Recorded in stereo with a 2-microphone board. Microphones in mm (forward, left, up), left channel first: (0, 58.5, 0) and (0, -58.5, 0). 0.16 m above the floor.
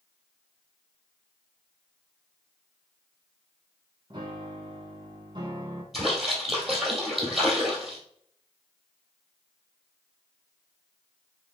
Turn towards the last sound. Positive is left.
turn(degrees=0)  # may be behind; listen again after turning